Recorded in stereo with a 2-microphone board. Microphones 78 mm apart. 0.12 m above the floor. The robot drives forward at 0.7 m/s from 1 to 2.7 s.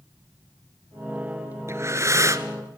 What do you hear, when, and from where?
1.7 s breathing: 35° right (ahead or behind), 1.4 m; by 2.5 s 40° right (ahead or behind), 1.2 m